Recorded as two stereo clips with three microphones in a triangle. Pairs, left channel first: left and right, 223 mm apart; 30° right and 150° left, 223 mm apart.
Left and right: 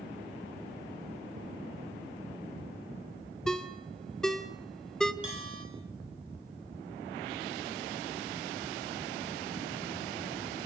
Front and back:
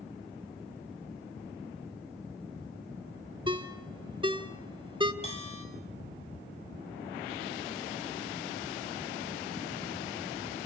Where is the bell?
95° right, 7.5 m.